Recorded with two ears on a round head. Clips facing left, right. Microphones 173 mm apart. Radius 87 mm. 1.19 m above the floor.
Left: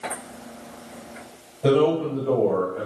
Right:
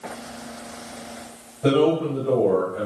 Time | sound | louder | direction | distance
1.6 | a man speaking | even | 5° left (ahead or behind) | 5 m